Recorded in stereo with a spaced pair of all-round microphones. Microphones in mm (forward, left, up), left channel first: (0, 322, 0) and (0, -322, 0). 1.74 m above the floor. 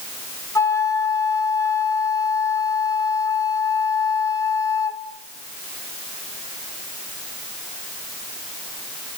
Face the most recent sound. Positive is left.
turn(degrees=5)  # may be behind; listen again after turning